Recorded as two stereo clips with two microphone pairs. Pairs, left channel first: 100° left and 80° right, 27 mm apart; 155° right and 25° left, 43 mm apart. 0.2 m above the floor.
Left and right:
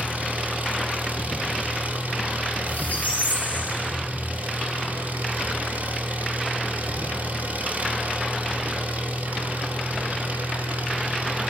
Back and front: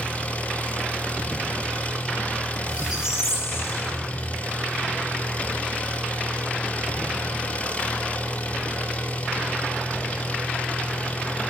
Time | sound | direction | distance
0.0 | an engine running | 95° right | 3.5 m
2.7 | a squeak | 95° left | 3.5 m